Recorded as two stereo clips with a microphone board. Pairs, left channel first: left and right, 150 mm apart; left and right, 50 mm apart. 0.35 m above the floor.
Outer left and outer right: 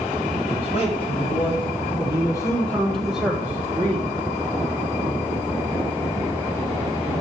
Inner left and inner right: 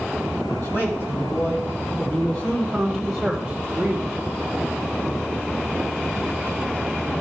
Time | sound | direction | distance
0.5 | a man speaking | 45° left (ahead or behind) | 2.5 m